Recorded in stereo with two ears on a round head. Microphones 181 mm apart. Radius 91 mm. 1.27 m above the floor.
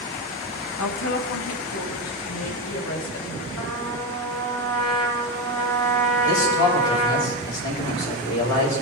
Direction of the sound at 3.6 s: 70° left (ahead or behind).